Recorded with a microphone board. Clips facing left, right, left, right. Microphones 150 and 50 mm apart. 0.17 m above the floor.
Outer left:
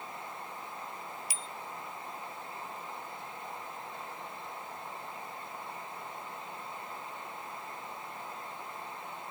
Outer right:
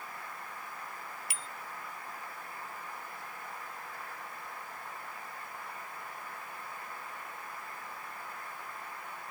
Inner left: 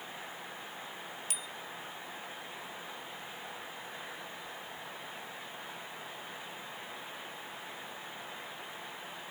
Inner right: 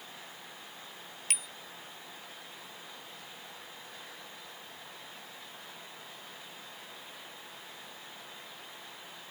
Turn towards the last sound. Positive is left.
turn(degrees=-65)  # may be behind; listen again after turning